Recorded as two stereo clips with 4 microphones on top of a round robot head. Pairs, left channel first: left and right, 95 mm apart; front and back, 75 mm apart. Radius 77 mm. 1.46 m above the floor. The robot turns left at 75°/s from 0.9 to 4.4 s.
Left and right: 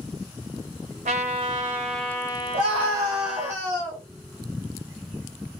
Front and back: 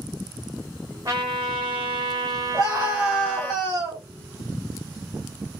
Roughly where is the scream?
Right.